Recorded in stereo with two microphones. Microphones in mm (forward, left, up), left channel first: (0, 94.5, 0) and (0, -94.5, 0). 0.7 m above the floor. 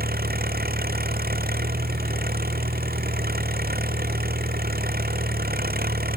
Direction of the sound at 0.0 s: 55° right (ahead or behind).